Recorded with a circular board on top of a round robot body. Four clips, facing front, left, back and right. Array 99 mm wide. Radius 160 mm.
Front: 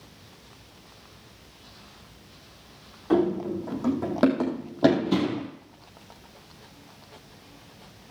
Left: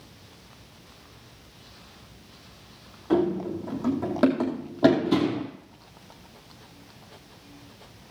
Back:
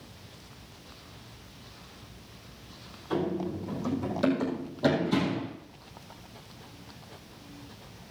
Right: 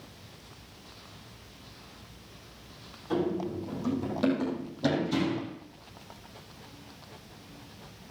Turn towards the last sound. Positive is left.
turn(degrees=70)